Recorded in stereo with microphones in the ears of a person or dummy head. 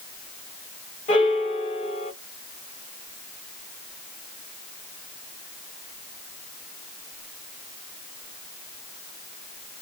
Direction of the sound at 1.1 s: 35° left (ahead or behind).